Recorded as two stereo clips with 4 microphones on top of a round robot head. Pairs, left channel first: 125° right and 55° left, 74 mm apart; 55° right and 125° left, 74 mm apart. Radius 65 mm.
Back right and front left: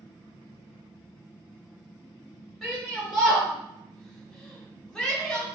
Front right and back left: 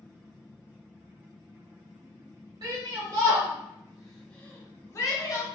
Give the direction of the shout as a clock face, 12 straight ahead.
7 o'clock.